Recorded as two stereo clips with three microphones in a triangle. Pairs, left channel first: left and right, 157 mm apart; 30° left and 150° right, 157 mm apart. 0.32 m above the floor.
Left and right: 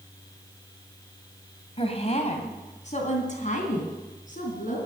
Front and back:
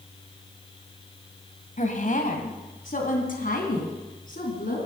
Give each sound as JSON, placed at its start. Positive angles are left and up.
{"t": 1.8, "sound": "a woman speaking", "azimuth_deg": 50, "distance_m": 1.9}